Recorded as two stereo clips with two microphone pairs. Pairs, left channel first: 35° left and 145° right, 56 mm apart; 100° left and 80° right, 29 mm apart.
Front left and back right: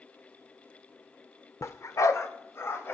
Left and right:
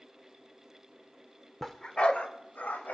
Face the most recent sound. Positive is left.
turn(degrees=75)